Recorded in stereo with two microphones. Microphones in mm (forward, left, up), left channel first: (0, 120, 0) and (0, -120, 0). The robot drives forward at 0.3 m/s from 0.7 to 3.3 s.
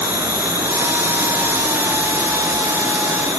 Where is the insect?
80° left, 1.5 m; by 3.4 s 60° left (ahead or behind), 1.8 m.